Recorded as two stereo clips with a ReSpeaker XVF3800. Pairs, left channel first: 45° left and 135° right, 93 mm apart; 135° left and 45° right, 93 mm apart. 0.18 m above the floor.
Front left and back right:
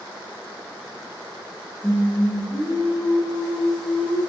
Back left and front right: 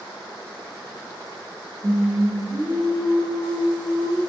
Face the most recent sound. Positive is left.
turn(degrees=-45)